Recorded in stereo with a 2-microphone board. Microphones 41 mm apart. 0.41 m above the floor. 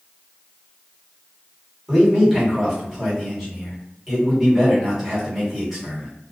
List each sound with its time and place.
1.9 s a man speaking: 5° right (ahead or behind), 1.5 m